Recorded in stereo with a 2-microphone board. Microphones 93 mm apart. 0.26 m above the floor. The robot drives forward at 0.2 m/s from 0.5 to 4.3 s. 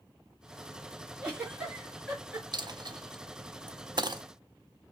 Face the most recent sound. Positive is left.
turn(degrees=-50)  # may be behind; listen again after turning